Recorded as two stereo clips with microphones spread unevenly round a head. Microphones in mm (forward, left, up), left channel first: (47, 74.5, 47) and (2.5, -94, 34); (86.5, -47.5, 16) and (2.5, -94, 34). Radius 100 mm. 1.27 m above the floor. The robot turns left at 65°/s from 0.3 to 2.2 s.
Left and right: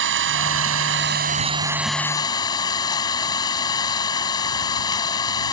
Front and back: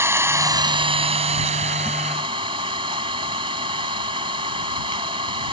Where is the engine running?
90° right; by 5.5 s 145° left.